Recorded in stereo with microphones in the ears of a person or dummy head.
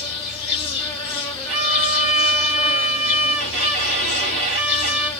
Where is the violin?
60° right (ahead or behind), 1.9 m.